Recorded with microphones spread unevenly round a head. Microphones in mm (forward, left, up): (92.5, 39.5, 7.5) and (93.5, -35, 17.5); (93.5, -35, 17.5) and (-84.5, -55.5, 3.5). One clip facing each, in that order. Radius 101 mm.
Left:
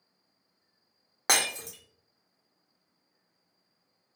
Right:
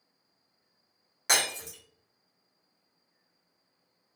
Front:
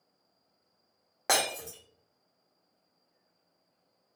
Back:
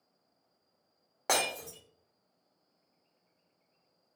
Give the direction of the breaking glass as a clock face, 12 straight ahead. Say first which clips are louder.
Left 1 dB, front 1 dB; 9 o'clock.